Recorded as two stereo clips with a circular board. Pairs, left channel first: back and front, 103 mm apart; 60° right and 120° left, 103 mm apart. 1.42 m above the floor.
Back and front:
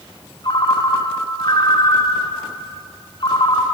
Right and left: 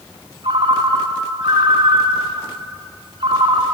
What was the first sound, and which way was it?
A ringtone, 145° left.